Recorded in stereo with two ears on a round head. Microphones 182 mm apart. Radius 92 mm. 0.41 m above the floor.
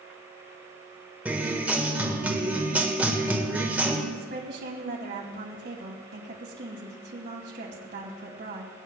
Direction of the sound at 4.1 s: 50° right (ahead or behind).